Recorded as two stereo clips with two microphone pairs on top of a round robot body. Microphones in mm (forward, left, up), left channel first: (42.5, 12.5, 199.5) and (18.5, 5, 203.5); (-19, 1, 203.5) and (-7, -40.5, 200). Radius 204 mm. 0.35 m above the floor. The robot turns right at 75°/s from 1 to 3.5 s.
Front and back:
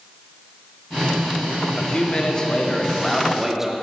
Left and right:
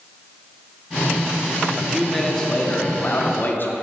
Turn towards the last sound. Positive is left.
turn(degrees=115)